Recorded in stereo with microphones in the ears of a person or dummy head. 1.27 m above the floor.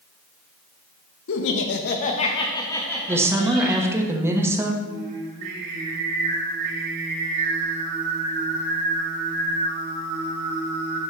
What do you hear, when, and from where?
1.3 s laughter: 80° left, 1.0 m; by 3.9 s centre (ahead or behind), 2 m
3.1 s a woman speaking: 15° right (ahead or behind), 1.2 m
4.8 s singing: 70° right (ahead or behind), 3 m